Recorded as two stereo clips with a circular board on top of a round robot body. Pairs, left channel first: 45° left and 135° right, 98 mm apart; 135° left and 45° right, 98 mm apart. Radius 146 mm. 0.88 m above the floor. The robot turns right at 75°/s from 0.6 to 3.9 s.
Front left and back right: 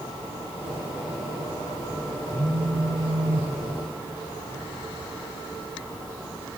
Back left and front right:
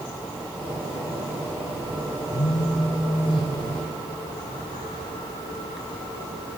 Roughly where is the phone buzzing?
Behind left.